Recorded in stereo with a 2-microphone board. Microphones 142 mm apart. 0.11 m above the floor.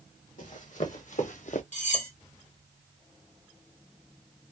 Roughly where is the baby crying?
No baby crying in this recording.